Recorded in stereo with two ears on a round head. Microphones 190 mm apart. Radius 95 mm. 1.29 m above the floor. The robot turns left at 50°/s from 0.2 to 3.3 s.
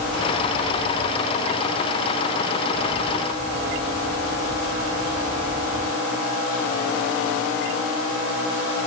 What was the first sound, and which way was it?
Only background noise.